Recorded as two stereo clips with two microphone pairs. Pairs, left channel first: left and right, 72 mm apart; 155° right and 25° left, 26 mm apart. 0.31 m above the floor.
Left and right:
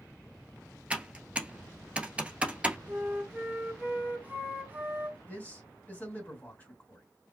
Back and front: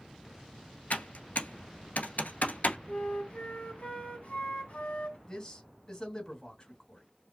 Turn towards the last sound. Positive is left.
turn(degrees=150)